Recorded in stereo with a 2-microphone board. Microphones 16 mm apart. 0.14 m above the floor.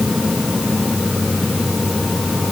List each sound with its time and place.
Only background noise.